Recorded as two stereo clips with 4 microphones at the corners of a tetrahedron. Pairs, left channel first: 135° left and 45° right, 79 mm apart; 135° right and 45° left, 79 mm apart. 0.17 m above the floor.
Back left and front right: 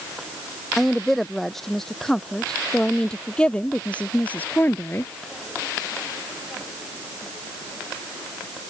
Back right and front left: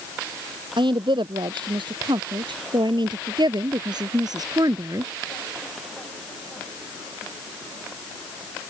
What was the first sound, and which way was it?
A woman speaking, 45° left.